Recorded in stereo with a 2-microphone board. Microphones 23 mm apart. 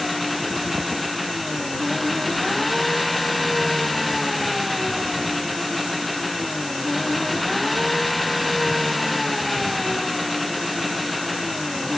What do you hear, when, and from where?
0.0 s an engine running: centre (ahead or behind)